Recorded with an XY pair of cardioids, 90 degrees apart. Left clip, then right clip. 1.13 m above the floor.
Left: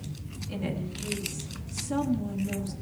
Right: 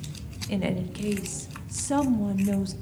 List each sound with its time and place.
0.5 s a woman speaking: 70° right, 1.0 m